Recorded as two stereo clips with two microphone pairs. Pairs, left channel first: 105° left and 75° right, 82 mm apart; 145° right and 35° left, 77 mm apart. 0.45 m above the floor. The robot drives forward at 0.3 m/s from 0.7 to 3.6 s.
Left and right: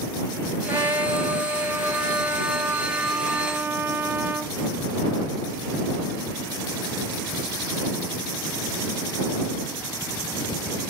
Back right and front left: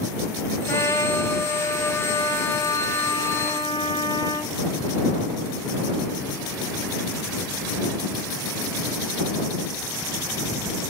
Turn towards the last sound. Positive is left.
turn(degrees=-135)